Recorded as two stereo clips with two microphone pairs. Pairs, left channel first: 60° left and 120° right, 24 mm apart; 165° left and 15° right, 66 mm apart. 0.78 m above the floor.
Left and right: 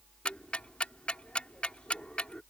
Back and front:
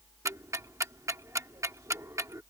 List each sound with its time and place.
0.2 s ticking: 25° left